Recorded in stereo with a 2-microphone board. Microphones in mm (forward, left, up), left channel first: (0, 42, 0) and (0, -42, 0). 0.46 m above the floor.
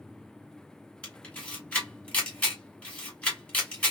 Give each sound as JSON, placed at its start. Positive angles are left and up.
{"t": 1.0, "sound": "a camera shutter", "side_deg": 15, "distance_m": 2.0}